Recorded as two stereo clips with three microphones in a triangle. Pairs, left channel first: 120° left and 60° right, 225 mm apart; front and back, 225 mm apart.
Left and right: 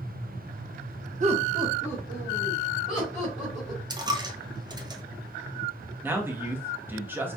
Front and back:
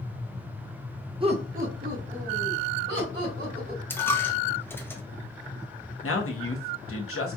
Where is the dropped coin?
60° right, 0.7 m.